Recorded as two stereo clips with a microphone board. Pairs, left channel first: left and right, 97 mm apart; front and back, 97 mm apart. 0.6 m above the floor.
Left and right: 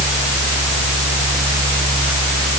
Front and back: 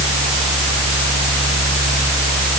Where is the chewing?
I don't hear chewing.